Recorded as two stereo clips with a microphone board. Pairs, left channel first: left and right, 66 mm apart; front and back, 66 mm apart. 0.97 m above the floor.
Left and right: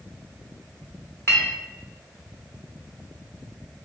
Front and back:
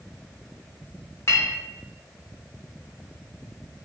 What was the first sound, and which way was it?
A clink, 40° left.